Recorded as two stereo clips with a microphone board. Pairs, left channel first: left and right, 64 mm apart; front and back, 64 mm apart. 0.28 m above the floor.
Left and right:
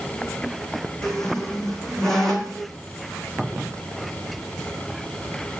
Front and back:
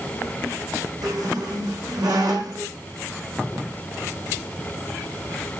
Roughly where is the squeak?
Behind.